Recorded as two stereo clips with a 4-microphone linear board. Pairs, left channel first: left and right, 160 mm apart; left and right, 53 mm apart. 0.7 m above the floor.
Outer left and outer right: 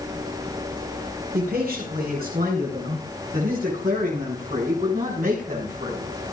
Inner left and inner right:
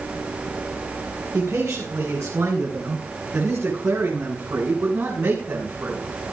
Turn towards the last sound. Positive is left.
turn(degrees=-55)  # may be behind; listen again after turning